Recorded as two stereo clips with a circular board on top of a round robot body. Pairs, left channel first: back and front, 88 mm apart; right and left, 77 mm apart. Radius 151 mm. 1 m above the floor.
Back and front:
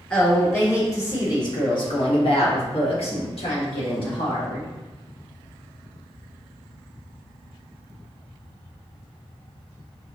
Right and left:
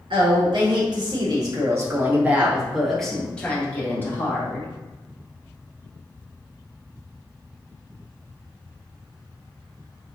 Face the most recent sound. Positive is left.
turn(degrees=-150)